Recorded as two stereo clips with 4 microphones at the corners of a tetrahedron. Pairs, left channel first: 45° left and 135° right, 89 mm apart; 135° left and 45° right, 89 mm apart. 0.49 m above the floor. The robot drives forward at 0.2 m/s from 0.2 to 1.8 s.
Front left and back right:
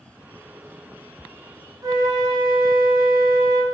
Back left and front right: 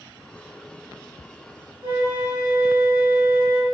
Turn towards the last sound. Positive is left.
turn(degrees=-105)